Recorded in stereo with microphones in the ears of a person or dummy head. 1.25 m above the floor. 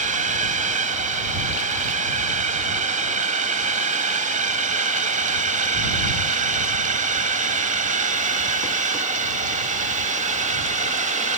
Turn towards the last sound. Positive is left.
turn(degrees=-40)  # may be behind; listen again after turning